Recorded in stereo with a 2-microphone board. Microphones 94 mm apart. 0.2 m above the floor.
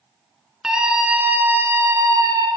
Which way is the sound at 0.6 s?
5° right (ahead or behind).